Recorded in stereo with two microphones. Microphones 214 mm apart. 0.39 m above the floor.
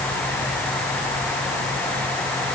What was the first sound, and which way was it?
Only background noise.